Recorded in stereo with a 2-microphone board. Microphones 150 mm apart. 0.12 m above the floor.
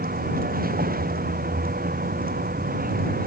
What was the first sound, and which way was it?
A vehicle, 80° right.